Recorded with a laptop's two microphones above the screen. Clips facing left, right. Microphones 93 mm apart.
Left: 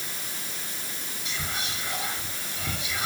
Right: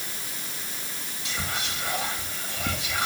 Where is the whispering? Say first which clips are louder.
Right 2 dB; 70° right (ahead or behind), 2 m.